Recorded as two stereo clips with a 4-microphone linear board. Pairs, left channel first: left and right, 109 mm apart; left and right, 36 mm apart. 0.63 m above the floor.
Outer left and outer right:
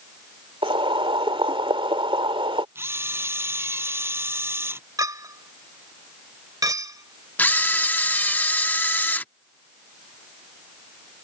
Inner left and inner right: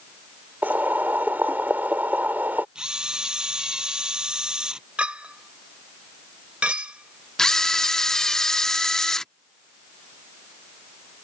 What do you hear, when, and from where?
0.6 s boiling: 55° right (ahead or behind)
2.8 s a camera shutter: 20° right (ahead or behind)
5.0 s a clink: 35° right (ahead or behind)
7.4 s a camera shutter: 15° left (ahead or behind)